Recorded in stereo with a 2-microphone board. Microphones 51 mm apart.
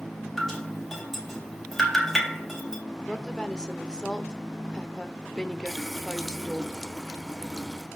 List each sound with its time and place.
0.4 s dripping: 5° left (ahead or behind), 3 m
3.1 s a woman speaking: 15° left (ahead or behind), 1.0 m
5.7 s a running tap: 10° left (ahead or behind), 0.9 m